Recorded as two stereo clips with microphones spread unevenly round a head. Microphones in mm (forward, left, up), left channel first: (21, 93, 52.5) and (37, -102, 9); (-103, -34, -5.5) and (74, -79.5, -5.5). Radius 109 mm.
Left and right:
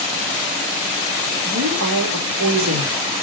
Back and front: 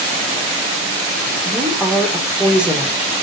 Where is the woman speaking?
100° right, 3.5 m.